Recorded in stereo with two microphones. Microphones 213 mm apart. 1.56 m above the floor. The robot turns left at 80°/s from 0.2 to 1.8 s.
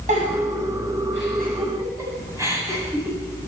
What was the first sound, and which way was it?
A giggle, 35° right (ahead or behind).